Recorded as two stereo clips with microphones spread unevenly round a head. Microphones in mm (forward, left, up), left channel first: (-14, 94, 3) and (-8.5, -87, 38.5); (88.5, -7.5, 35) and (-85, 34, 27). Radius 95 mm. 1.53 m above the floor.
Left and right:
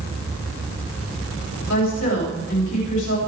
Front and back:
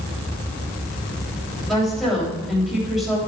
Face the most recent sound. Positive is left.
turn(degrees=75)